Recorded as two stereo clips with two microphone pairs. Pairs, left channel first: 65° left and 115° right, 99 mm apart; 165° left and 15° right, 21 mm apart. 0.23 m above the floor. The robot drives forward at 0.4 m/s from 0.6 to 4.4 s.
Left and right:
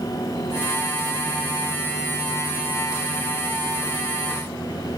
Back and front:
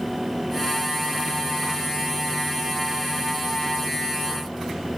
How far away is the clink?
No clink in this recording.